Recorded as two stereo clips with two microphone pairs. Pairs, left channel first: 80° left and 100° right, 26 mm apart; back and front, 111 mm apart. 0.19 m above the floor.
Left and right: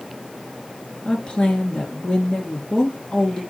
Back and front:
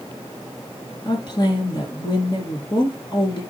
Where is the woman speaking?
135° left, 2.5 m.